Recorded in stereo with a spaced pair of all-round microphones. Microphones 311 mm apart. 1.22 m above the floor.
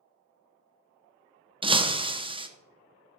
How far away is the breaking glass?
About 0.5 m.